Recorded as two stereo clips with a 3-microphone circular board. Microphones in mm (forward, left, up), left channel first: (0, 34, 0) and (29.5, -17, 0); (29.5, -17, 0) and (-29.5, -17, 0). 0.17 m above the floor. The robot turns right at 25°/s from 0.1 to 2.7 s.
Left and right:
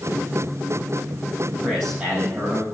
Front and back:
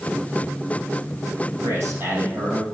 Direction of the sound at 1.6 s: 140° right.